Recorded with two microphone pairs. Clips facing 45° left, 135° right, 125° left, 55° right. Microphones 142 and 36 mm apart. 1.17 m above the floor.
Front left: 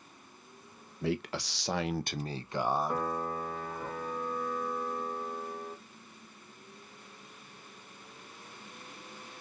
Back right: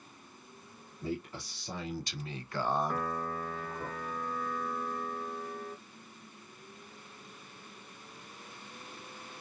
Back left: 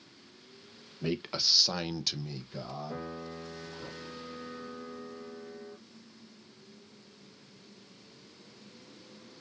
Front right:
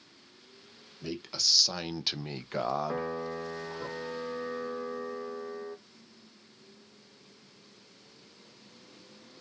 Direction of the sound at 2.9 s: 25° right.